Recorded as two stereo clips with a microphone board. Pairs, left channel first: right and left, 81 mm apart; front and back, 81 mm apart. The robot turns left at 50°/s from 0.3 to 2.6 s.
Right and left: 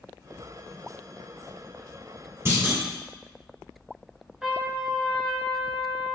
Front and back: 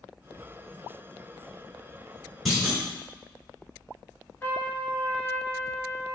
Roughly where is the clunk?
Left.